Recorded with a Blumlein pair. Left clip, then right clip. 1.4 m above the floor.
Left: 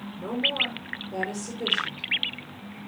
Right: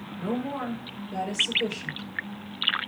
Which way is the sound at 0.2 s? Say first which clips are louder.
Left 6 dB; 5° left.